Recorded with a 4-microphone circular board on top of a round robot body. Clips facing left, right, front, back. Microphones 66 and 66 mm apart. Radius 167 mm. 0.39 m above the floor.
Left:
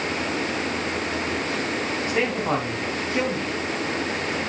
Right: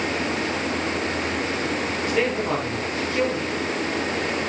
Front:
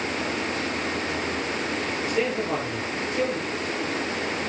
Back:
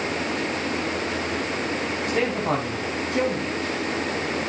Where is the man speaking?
155° left, 4 m.